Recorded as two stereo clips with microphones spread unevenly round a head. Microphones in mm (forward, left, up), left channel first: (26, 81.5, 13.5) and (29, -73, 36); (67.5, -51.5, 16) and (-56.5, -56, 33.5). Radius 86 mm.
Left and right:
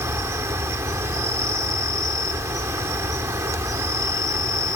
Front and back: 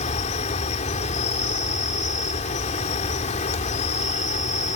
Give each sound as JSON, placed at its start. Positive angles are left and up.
{"t": 0.0, "sound": "an insect", "azimuth_deg": -25}